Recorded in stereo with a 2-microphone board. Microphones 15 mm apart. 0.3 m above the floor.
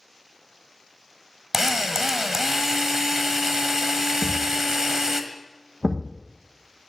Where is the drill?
30° right (ahead or behind), 1.3 m.